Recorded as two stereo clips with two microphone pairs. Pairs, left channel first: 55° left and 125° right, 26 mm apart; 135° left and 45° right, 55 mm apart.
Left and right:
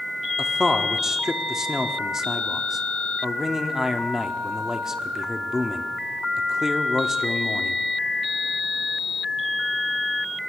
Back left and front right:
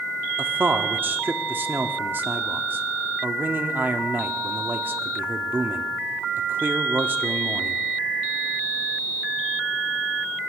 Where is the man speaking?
60° right, 1.0 m.